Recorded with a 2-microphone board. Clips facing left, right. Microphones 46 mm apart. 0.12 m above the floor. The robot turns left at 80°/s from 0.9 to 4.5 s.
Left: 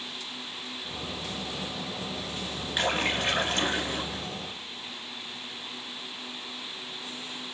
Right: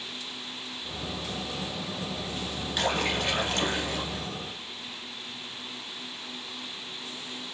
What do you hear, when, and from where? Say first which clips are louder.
2.8 s a splash: even; 15° left (ahead or behind), 1.5 m